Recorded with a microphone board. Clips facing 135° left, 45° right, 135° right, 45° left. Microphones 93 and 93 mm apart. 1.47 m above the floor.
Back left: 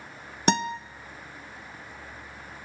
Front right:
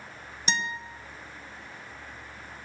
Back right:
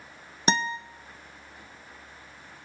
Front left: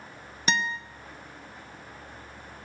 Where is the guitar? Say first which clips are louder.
Back left 7 dB, back right 2 dB; 170° left, 0.9 m.